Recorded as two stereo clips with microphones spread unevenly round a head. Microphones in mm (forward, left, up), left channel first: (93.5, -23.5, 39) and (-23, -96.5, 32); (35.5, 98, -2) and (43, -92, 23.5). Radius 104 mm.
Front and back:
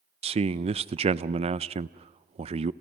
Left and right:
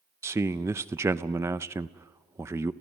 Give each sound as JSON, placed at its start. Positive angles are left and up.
{"t": 0.2, "sound": "a man speaking", "azimuth_deg": -170, "distance_m": 0.5}